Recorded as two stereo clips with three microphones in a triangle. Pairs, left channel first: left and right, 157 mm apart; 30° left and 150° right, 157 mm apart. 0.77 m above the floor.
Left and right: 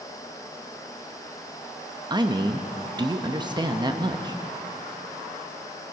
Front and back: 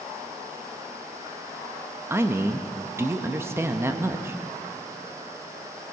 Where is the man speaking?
95° right, 0.7 m.